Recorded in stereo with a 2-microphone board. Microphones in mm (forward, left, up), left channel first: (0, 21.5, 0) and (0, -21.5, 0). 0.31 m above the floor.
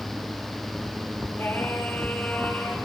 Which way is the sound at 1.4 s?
60° left (ahead or behind).